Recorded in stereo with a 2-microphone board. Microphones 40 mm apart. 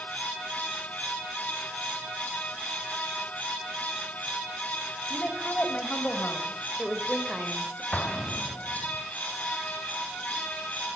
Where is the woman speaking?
40° left (ahead or behind), 3.5 m; by 7.8 s 15° right (ahead or behind), 2.5 m.